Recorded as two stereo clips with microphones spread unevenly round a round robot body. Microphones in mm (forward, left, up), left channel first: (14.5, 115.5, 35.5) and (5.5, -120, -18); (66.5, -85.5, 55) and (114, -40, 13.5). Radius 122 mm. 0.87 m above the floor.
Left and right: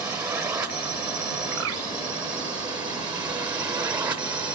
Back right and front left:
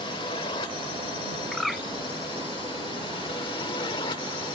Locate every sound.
0.0 s a drone: 170° right
1.5 s a bird: 50° right